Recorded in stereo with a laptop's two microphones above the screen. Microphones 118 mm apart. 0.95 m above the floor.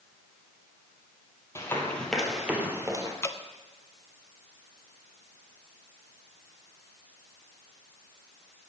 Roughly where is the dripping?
Left.